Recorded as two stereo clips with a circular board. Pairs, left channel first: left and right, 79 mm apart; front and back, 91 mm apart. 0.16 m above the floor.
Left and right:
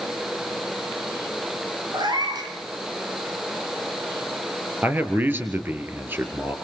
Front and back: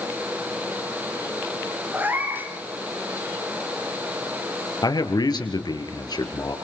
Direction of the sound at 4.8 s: 30° right.